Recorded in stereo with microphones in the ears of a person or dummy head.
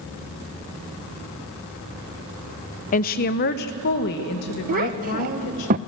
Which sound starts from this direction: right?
A child speaking, at 4.7 s.